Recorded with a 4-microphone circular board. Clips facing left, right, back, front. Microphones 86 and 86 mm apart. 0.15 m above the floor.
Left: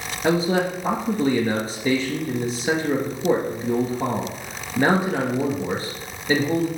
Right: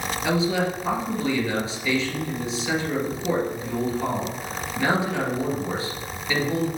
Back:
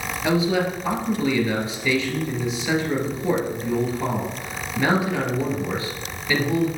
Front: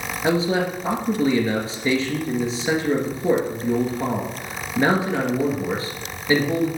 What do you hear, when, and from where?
0.2 s a man speaking: 55° left, 2 m